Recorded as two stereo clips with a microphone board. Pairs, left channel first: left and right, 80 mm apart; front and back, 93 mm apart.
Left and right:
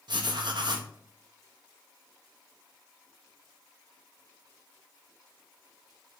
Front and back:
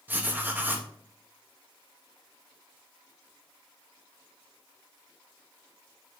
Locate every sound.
0.1 s writing: 110° right, 1.0 m